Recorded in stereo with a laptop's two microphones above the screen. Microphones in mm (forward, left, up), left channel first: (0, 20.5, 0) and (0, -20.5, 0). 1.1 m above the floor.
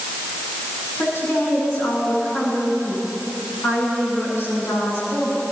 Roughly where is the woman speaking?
Left.